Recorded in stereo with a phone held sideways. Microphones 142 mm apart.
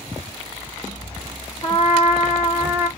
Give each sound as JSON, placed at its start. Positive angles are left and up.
{"t": 1.6, "sound": "a trumpet", "side_deg": 40, "distance_m": 2.0}